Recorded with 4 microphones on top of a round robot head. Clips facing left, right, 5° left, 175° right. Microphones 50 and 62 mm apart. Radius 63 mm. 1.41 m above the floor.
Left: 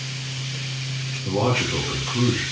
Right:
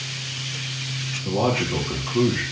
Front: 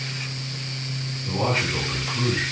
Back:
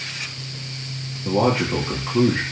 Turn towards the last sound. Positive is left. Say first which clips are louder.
# even, back 5 dB
turn(degrees=-165)